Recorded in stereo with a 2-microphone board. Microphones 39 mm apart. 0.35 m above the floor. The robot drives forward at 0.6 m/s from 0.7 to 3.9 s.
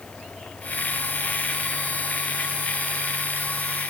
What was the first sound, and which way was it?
Only background noise.